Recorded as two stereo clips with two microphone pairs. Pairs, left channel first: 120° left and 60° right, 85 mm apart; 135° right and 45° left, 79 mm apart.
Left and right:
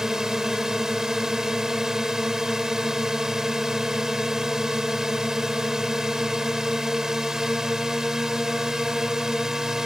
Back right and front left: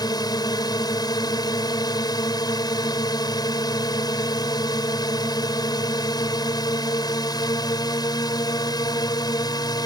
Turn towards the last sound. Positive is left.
turn(degrees=-145)